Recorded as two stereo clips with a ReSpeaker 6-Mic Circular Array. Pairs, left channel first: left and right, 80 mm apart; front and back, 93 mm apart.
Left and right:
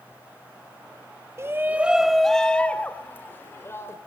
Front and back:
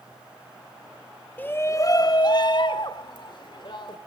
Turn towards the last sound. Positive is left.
turn(degrees=35)